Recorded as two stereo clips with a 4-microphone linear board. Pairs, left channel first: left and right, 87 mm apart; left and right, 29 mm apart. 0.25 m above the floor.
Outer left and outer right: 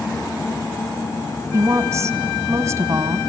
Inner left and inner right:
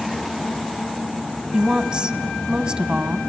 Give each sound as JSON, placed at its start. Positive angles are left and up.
{"t": 1.5, "sound": "a woman speaking", "side_deg": -35, "distance_m": 1.6}